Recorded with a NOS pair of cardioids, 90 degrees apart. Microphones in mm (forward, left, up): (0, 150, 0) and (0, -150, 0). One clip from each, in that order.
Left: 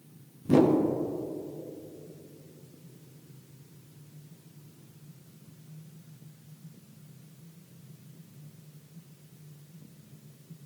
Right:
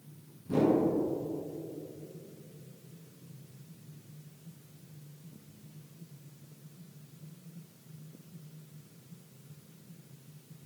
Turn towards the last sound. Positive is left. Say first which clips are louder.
# left 5 dB
turn(degrees=65)